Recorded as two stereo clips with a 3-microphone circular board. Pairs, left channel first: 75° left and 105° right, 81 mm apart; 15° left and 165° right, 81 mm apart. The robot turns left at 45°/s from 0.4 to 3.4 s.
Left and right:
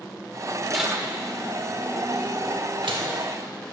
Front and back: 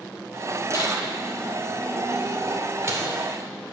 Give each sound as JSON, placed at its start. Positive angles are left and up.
{"t": 0.7, "sound": "tearing paper", "azimuth_deg": -15, "distance_m": 0.8}